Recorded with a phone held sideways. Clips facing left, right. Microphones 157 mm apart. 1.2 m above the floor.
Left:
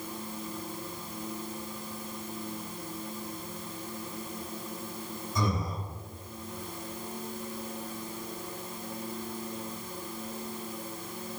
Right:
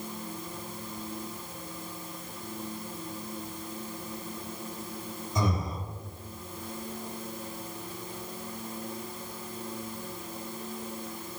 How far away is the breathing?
About 1.6 m.